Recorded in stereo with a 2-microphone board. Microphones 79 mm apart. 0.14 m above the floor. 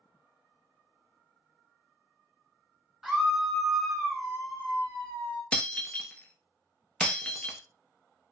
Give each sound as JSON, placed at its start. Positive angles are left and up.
{"t": 3.0, "sound": "a scream", "side_deg": -5, "distance_m": 1.3}
{"t": 5.5, "sound": "breaking glass", "side_deg": 15, "distance_m": 0.7}